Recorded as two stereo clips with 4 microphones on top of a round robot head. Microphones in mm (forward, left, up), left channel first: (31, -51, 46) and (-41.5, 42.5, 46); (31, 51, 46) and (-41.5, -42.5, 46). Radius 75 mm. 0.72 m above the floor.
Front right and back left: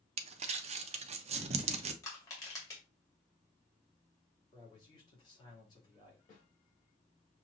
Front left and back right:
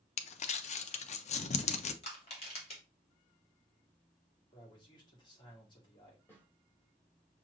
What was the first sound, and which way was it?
Crumpling, 90° left.